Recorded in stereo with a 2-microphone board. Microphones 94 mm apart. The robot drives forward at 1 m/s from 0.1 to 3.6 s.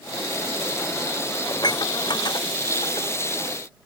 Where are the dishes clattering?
45° left (ahead or behind); by 3.1 s 50° left (ahead or behind).